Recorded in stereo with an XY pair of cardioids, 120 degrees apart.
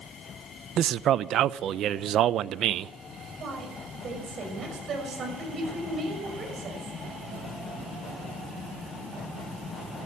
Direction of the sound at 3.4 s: 45° right.